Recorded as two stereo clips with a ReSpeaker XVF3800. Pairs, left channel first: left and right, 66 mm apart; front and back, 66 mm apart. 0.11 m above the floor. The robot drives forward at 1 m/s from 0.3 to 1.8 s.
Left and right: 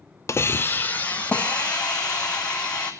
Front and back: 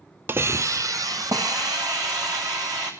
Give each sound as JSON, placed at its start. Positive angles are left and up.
{"t": 0.3, "sound": "a hiss", "azimuth_deg": 130, "distance_m": 0.7}